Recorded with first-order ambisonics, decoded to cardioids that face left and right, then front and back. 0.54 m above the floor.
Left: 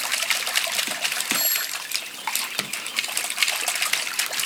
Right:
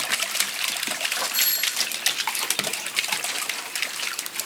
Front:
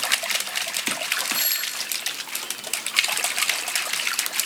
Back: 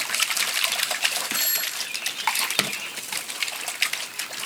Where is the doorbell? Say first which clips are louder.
Right 1 dB, even; 100° right, 3.5 m.